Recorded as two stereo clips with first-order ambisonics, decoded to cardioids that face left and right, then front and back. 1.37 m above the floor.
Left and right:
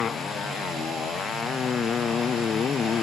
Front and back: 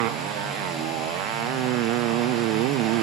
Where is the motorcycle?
155° left.